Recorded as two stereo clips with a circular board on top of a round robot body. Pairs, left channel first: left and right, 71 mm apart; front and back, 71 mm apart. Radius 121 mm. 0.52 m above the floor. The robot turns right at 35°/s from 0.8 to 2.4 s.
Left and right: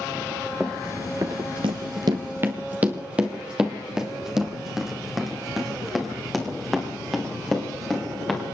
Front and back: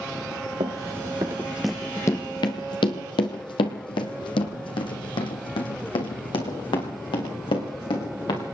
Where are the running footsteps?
175° left, 0.7 m; by 8.5 s straight ahead, 3.5 m.